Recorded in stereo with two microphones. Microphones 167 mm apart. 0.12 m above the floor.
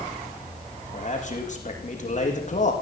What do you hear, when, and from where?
0.9 s a man speaking: 50° left (ahead or behind), 5.5 m